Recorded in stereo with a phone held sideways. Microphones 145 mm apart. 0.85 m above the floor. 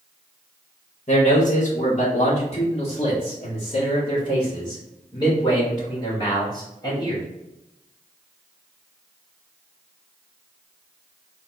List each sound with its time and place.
1.1 s a man speaking: 55° left (ahead or behind), 1.3 m; by 7.2 s 25° left (ahead or behind), 4 m